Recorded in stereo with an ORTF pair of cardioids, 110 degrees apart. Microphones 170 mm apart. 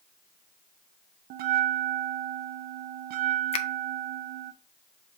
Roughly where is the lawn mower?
I don't hear a lawn mower.